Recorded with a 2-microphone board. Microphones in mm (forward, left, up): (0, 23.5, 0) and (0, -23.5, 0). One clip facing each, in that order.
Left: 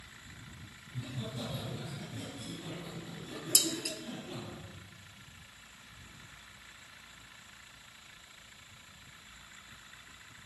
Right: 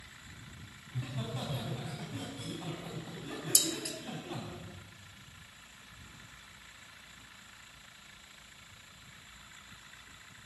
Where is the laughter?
45° right (ahead or behind), 4.5 m.